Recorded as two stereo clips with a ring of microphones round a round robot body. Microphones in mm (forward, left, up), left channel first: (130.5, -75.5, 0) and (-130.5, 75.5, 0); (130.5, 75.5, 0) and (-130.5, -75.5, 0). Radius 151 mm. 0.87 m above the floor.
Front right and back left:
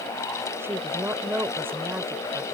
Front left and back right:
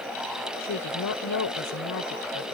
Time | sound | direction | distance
0.6 | a woman speaking | 70° left | ?